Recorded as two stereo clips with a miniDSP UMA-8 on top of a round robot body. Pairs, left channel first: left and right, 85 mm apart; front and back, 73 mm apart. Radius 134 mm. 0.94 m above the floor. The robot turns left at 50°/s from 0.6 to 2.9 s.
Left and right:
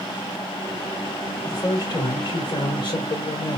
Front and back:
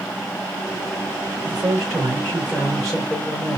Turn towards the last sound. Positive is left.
turn(degrees=85)